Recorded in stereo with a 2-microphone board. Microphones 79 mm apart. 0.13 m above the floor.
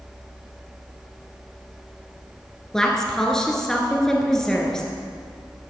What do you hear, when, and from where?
2.7 s a woman speaking: 5° left (ahead or behind), 1.6 m